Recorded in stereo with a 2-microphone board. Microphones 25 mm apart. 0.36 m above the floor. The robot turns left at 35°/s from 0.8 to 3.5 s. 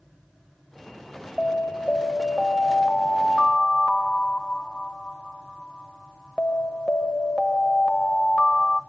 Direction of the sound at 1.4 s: 150° left.